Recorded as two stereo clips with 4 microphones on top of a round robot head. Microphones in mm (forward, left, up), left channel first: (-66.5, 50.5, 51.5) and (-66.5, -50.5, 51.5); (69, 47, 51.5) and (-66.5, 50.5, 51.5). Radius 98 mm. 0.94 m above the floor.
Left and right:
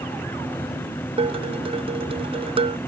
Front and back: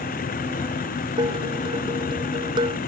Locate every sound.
0.0 s a vehicle: 15° left
1.2 s dishes clattering: 115° right